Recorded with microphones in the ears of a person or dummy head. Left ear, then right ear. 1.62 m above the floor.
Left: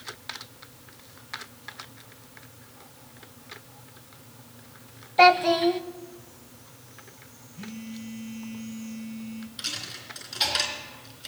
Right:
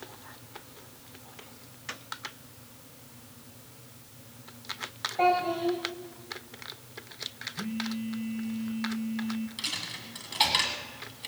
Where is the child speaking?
40° left (ahead or behind), 0.8 m.